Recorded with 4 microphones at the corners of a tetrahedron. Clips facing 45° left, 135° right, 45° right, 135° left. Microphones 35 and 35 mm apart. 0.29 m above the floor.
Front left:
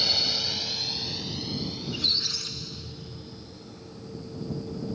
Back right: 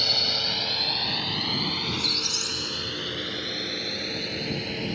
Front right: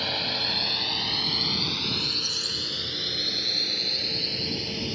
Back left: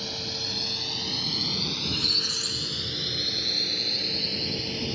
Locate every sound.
0.0 s a drone: 55° right; by 5.0 s 135° right
1.8 s a squeak: 115° left